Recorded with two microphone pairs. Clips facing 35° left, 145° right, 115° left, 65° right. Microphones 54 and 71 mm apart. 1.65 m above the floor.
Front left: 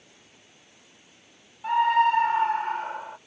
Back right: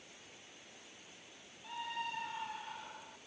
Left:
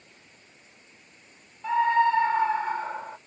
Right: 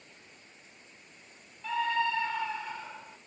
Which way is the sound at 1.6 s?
55° left.